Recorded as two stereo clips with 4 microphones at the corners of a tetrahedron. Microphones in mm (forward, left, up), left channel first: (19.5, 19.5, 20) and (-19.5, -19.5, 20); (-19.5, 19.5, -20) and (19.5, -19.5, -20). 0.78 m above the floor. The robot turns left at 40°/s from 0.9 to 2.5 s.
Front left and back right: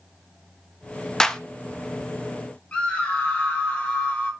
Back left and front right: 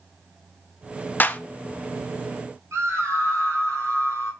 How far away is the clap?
About 0.6 m.